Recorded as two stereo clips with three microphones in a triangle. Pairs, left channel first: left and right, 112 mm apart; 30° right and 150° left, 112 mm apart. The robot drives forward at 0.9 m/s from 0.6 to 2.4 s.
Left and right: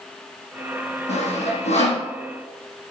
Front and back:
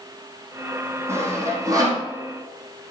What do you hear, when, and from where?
1.1 s sawing: 85° left, 4.5 m; by 2.0 s 95° left, 4.5 m